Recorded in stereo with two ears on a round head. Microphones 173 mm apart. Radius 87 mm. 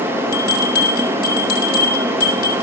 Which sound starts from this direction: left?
A bell, at 0.3 s.